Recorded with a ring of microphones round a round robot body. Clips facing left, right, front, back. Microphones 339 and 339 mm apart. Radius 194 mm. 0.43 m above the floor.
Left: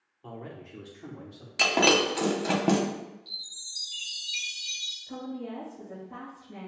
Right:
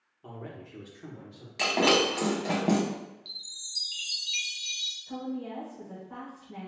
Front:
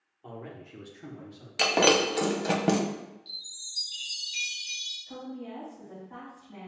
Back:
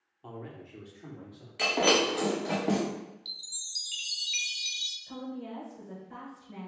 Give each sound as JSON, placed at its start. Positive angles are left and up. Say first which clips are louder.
{"t": 0.2, "sound": "a man speaking", "louder": "left 1 dB, front 1 dB", "azimuth_deg": 180, "distance_m": 0.8}
{"t": 1.6, "sound": "breaking glass", "louder": "left 1 dB, front 3 dB", "azimuth_deg": 25, "distance_m": 0.7}
{"t": 3.2, "sound": "a chime", "louder": "left 1 dB, front 1 dB", "azimuth_deg": -155, "distance_m": 0.6}
{"t": 5.1, "sound": "a woman speaking", "louder": "right 1 dB, back 1 dB", "azimuth_deg": -175, "distance_m": 1.9}